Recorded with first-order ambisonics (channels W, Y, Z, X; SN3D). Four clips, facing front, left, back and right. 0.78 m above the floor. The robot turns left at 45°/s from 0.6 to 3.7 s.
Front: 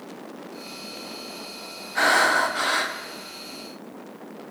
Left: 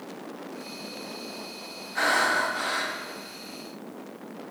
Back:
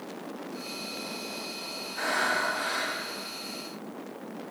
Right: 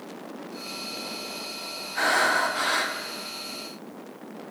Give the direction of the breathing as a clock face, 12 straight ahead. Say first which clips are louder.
Right 1 dB, front 9 dB; 12 o'clock.